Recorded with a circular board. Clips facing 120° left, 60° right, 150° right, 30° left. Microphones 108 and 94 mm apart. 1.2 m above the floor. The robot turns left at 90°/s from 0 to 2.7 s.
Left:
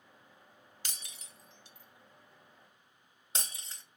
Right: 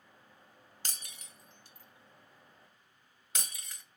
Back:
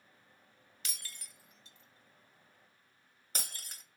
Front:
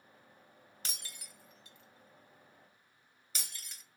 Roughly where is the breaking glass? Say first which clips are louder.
Right 2 dB, front 1 dB; ahead.